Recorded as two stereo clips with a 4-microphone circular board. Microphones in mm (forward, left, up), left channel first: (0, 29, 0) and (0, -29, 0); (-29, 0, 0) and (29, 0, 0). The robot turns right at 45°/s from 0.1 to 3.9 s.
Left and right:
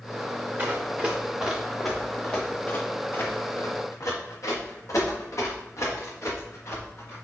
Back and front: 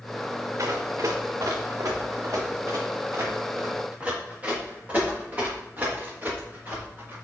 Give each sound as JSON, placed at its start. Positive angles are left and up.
{"t": 0.6, "sound": "running footsteps", "azimuth_deg": -30, "distance_m": 1.7}